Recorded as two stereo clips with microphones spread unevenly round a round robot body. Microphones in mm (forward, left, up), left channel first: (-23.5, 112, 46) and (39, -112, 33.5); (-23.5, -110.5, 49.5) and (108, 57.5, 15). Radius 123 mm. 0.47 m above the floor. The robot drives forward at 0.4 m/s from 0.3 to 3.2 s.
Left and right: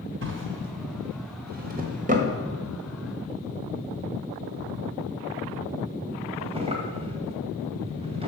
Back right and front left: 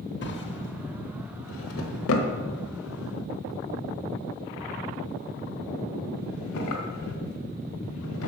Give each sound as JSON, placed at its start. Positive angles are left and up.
{"t": 0.2, "sound": "a drawer", "azimuth_deg": -95, "distance_m": 1.3}